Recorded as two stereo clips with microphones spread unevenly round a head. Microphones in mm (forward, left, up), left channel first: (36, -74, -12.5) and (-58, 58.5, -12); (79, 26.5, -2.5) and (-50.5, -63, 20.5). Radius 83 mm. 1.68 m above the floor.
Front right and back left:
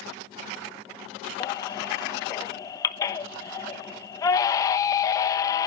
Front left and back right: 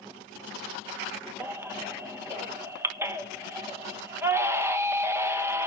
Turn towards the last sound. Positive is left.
turn(degrees=-105)